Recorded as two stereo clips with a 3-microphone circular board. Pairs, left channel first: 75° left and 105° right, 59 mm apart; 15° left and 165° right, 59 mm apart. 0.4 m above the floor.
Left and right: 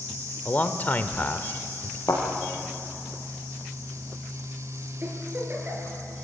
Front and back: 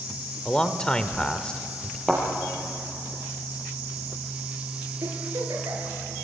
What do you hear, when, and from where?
0.5 s a man speaking: 75° left, 0.9 m
2.1 s a thud: 100° left, 5 m
5.0 s a giggle: 160° right, 4.5 m